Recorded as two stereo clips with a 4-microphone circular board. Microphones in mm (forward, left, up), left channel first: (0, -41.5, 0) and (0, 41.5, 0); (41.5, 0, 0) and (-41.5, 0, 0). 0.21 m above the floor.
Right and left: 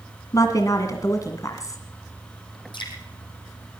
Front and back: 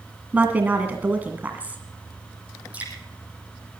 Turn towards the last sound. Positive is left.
turn(degrees=-105)